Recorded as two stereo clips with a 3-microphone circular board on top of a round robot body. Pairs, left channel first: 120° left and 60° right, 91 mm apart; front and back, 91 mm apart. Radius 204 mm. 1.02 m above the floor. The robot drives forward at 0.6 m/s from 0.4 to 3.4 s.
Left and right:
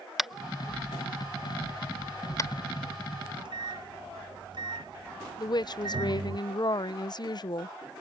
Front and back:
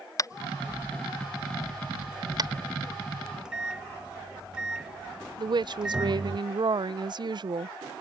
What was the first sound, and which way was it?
Tapping, 25° left.